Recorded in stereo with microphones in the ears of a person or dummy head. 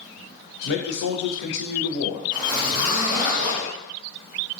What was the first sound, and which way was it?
A man speaking, 55° left (ahead or behind).